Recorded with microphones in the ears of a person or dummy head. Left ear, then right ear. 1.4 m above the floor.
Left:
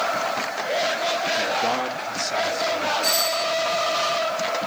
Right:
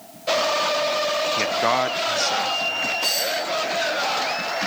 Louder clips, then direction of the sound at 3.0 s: Left 1 dB; 55° right (ahead or behind).